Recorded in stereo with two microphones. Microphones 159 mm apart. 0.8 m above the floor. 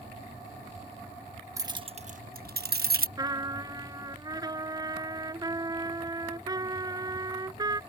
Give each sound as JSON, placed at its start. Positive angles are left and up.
{"t": 1.6, "sound": "keys jangling", "side_deg": -20}
{"t": 3.2, "sound": "a trumpet", "side_deg": -25}